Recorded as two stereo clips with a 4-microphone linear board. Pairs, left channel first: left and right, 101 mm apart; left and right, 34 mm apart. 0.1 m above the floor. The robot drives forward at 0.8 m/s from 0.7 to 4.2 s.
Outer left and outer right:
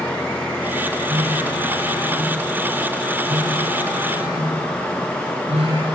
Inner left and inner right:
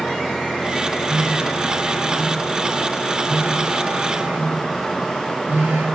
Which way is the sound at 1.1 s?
70° right (ahead or behind).